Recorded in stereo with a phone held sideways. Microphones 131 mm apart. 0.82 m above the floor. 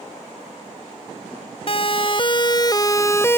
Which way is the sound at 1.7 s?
45° left (ahead or behind).